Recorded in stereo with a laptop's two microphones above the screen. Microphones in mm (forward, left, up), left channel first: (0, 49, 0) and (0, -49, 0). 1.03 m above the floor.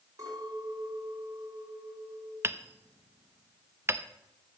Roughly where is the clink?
Right.